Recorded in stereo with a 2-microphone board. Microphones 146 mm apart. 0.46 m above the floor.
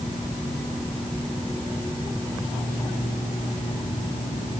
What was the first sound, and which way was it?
Only background noise.